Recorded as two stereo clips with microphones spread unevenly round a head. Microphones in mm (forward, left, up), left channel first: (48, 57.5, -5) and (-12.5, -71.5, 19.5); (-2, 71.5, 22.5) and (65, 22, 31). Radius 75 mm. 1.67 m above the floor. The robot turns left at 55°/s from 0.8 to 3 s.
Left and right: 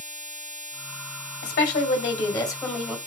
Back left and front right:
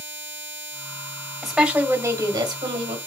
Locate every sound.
1.4 s a woman speaking: 55° left, 1.8 m; by 3.0 s 30° right, 1.8 m